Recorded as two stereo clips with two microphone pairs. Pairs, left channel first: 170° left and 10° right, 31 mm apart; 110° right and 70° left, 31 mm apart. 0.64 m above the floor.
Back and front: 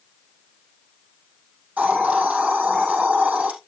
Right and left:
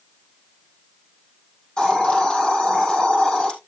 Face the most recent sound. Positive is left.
turn(degrees=-50)